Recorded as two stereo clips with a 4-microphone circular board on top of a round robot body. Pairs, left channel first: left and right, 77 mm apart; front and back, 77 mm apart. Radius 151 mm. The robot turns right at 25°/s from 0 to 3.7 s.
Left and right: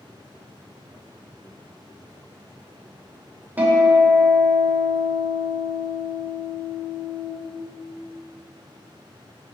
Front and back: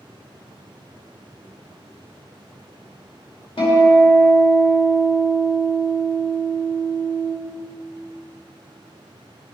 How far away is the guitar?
About 2.5 m.